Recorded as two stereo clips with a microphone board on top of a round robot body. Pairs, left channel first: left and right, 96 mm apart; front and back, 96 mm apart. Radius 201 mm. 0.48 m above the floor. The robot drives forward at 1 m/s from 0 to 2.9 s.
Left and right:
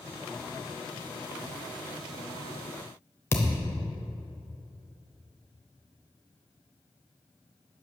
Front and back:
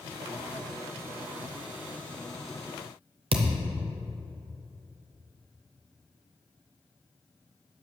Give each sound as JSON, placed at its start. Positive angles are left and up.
{"t": 3.3, "sound": "a thud", "azimuth_deg": 155, "distance_m": 0.9}